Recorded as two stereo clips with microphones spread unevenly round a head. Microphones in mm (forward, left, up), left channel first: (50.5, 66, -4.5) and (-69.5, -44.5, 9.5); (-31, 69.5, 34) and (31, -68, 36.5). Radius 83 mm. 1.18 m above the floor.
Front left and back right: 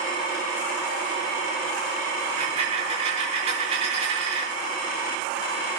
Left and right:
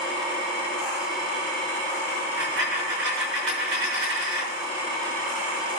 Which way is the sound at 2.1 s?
80° right.